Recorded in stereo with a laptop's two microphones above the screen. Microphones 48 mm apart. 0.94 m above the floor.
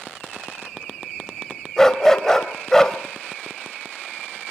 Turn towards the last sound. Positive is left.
turn(degrees=10)  # may be behind; listen again after turning